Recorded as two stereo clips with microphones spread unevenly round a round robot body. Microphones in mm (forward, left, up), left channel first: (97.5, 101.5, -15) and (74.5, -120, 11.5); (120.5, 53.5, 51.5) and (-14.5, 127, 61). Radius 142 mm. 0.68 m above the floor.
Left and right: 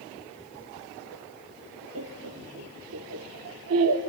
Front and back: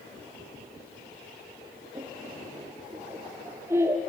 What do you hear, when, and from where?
1.9 s laughter: 130° right, 1.2 m